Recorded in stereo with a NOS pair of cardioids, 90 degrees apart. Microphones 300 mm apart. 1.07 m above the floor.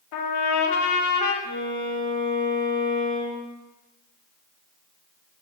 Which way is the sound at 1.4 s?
25° left.